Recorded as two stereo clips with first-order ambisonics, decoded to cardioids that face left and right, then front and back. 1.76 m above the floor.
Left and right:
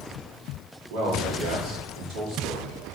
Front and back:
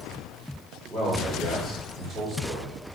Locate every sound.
0.9 s a man speaking: 80° right, 4 m